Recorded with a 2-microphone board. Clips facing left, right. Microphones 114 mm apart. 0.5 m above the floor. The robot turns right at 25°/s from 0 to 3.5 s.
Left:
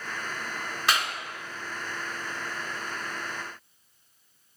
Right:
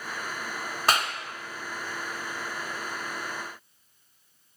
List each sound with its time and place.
0.9 s a clap: 40° right (ahead or behind), 0.8 m